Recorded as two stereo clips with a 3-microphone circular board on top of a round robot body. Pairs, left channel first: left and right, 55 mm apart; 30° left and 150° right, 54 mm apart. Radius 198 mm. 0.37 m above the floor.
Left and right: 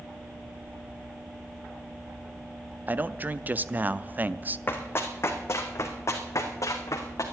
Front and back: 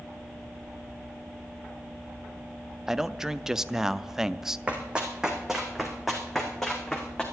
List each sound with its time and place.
2.9 s a man speaking: 75° right, 0.8 m
4.7 s running footsteps: 140° left, 1.8 m; by 7.2 s 110° left, 2.5 m